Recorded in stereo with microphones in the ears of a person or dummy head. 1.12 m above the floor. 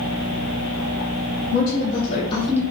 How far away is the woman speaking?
About 1.7 m.